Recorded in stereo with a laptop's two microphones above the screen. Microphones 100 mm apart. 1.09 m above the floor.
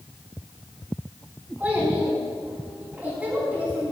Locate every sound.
1.6 s a child speaking: 10° right (ahead or behind), 5 m